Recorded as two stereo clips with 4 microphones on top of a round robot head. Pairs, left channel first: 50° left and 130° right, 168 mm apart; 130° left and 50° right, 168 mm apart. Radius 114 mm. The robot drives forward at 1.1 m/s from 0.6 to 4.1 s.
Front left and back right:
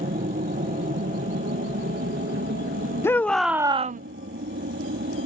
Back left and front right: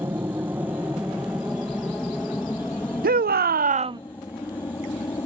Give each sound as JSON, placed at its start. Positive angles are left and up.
{"t": 0.0, "sound": "an aircraft", "azimuth_deg": -120}
{"t": 3.0, "sound": "a shout", "azimuth_deg": -25}